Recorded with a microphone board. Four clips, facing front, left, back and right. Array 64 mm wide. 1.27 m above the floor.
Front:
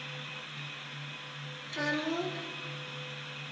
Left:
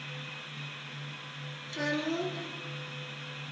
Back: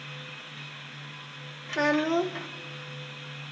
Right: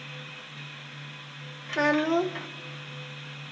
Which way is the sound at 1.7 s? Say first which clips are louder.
Right 9 dB, back 8 dB; 125° right.